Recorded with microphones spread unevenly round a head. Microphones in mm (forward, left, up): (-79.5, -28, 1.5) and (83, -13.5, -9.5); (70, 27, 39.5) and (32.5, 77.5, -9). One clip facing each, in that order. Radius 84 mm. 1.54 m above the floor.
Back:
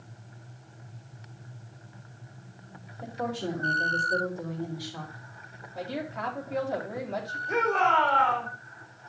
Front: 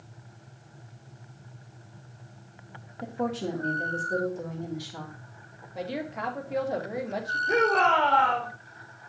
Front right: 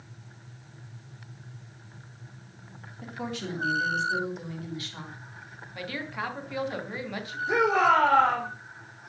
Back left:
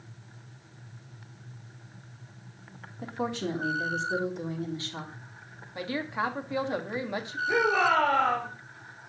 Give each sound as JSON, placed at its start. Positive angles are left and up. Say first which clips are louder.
{"t": 3.0, "sound": "a woman speaking", "louder": "front 2 dB, back left 4 dB", "azimuth_deg": 75, "distance_m": 2.5}
{"t": 5.8, "sound": "a woman speaking", "louder": "front 1 dB, back left 4 dB", "azimuth_deg": 80, "distance_m": 1.5}
{"t": 7.5, "sound": "a shout", "louder": "front 2 dB, front right 2 dB", "azimuth_deg": 5, "distance_m": 6.0}